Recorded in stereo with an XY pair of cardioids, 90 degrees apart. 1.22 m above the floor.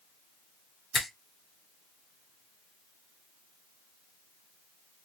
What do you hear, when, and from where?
0.9 s a finger snap: 60° left, 1.8 m